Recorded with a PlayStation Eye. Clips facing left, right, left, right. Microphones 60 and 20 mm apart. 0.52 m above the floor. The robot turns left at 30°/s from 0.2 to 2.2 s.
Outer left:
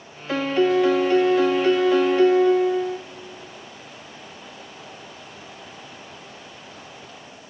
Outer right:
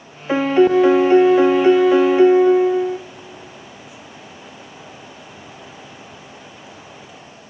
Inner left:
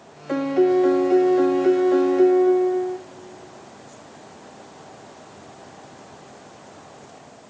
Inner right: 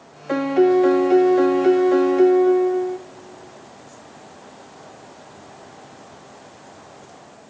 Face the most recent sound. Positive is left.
turn(degrees=-20)  # may be behind; listen again after turning